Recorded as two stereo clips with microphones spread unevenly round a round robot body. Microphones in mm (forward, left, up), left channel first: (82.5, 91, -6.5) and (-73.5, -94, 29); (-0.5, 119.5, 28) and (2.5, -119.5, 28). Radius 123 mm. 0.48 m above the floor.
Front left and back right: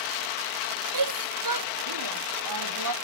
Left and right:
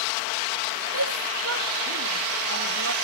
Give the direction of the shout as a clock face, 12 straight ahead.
4 o'clock.